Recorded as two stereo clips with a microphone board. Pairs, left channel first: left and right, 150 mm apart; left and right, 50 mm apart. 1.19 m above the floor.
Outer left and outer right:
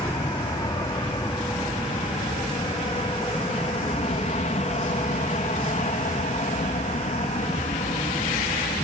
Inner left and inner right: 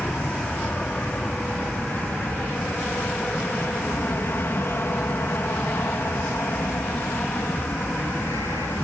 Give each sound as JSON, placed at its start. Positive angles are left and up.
{"t": 0.0, "sound": "an aircraft", "side_deg": 25}